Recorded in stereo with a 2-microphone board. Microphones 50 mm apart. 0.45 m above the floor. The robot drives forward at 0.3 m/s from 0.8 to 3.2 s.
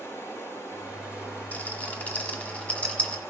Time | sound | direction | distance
0.0 | running water | 60° left (ahead or behind) | 4.5 m
1.5 | a rattle | 35° left (ahead or behind) | 1.4 m